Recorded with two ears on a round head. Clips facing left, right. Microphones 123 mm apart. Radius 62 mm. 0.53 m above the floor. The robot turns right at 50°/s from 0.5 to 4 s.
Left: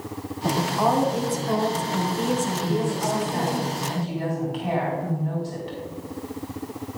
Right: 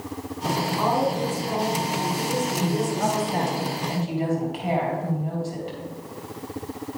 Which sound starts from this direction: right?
A woman speaking, at 2.6 s.